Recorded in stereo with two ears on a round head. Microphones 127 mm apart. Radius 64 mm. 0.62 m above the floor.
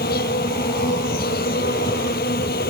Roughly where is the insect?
Left.